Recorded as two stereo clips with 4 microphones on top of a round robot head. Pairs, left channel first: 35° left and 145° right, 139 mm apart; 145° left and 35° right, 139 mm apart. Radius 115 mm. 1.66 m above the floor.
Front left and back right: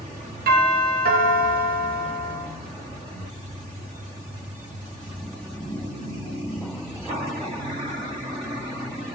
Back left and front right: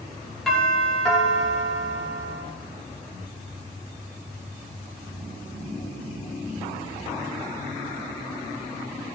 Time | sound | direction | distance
0.5 | a doorbell | 130° right | 5.5 m